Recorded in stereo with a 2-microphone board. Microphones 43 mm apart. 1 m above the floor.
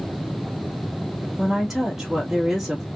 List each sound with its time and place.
1.4 s a woman speaking: 5° right (ahead or behind), 1.8 m